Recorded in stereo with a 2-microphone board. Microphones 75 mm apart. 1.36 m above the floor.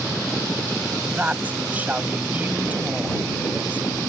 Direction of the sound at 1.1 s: 20° right (ahead or behind).